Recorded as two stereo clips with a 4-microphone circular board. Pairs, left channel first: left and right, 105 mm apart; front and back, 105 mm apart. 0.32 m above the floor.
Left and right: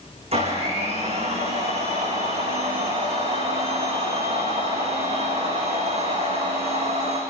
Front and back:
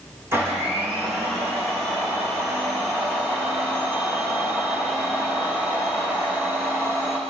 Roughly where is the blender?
Right.